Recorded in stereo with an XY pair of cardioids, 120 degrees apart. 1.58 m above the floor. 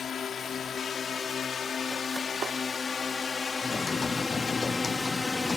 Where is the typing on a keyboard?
20° left.